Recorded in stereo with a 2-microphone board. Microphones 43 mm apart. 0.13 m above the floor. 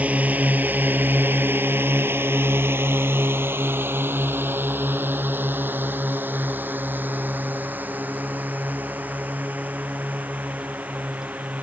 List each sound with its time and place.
0.0 s a drone: 35° right (ahead or behind); by 11.6 s 40° right (ahead or behind)